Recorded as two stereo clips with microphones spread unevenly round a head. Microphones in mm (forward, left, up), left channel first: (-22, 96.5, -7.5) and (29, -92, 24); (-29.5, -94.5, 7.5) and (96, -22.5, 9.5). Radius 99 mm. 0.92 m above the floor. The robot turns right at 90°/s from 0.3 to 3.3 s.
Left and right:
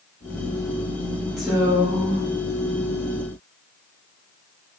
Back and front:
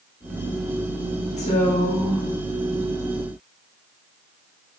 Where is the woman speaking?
175° right, 1.3 m; by 2.2 s 100° right, 1.3 m.